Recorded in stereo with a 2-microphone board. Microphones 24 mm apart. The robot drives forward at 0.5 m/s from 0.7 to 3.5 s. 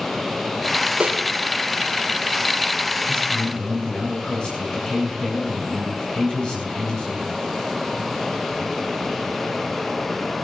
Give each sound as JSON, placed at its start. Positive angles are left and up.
{"t": 1.0, "sound": "a snare drum", "side_deg": -55, "distance_m": 4.5}
{"t": 3.1, "sound": "a man speaking", "side_deg": 35, "distance_m": 7.5}